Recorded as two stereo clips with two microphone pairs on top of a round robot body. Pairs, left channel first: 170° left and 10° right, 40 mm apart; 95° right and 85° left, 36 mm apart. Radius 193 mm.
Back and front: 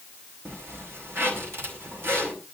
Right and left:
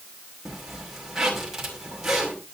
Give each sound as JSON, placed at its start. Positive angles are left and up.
{"t": 0.5, "sound": "a zipper", "azimuth_deg": 10, "distance_m": 5.5}